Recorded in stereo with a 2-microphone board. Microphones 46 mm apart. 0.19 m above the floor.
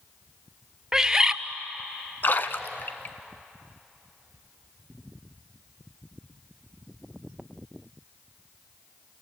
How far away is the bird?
About 0.6 m.